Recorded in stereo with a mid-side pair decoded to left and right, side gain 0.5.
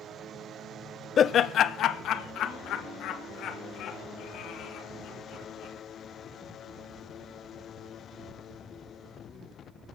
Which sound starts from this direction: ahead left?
Laughter, at 1.2 s.